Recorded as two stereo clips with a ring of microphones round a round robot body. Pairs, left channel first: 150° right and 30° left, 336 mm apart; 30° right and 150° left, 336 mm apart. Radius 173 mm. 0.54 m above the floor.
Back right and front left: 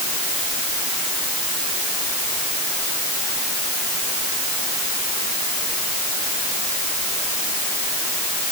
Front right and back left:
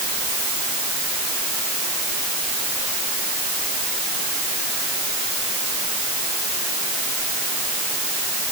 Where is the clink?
No clink in this recording.